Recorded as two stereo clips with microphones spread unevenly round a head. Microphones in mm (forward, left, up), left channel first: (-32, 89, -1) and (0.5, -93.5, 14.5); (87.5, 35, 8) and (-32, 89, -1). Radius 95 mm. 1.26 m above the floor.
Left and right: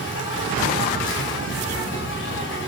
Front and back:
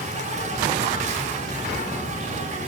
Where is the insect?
125° left, 7 m.